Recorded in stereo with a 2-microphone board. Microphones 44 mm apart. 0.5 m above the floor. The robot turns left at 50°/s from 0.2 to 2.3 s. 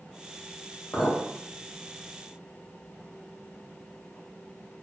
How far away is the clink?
About 1.2 m.